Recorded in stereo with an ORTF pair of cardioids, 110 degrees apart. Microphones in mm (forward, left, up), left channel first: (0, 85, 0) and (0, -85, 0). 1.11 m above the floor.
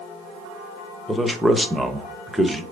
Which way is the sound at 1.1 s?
Straight ahead.